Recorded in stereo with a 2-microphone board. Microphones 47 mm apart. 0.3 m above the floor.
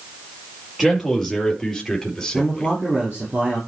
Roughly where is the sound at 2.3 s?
Right.